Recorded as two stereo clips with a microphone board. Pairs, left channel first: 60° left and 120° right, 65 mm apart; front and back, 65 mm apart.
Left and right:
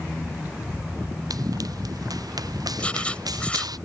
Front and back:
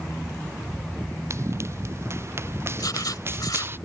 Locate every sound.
1.3 s running footsteps: 135° right; by 3.8 s 125° right
2.8 s writing: 10° right